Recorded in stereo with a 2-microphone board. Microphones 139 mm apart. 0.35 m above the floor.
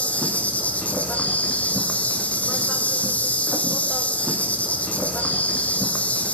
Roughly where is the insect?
Centre.